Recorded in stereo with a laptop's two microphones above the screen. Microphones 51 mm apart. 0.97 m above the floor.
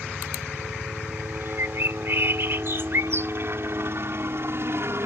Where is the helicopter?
45° right (ahead or behind); by 5.1 s 55° right (ahead or behind).